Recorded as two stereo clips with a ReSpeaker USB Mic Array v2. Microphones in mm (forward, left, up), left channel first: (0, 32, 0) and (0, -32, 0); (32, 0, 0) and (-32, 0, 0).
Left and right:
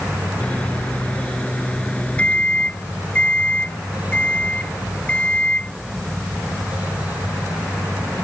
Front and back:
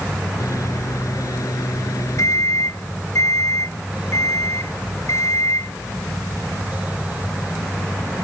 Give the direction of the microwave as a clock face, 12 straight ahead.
11 o'clock.